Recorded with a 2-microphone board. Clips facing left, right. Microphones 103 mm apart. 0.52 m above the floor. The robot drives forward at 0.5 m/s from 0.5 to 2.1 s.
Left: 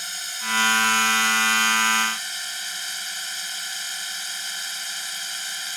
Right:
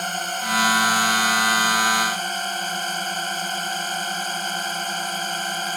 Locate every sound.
0.0 s a drone: 50° right (ahead or behind)